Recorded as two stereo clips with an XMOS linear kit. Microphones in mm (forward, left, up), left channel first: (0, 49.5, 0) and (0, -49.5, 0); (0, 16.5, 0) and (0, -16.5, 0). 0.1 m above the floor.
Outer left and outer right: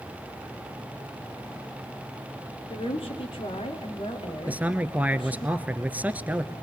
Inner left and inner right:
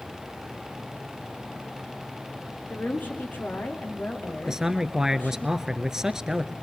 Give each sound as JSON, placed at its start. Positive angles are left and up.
{"t": 2.7, "sound": "a woman speaking", "side_deg": 70, "distance_m": 6.0}
{"t": 4.5, "sound": "a man speaking", "side_deg": -15, "distance_m": 1.2}